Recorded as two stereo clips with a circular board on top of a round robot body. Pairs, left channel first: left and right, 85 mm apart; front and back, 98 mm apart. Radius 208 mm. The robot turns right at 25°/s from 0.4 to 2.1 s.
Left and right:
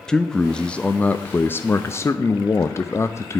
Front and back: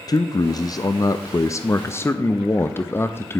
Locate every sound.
0.1 s a man speaking: 10° left, 0.7 m; by 3.4 s 55° left, 0.7 m